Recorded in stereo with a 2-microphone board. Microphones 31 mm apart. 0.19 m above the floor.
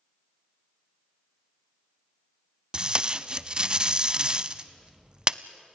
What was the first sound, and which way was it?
Tape being pulled, 25° right (ahead or behind).